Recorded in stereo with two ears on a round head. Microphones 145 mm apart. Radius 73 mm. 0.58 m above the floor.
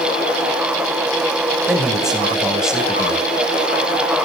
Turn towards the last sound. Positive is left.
turn(degrees=-5)  # may be behind; listen again after turning